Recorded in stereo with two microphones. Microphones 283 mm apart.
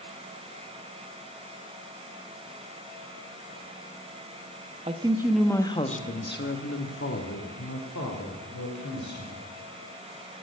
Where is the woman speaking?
25° right (ahead or behind), 0.9 m; by 9.5 s 75° left (ahead or behind), 3 m.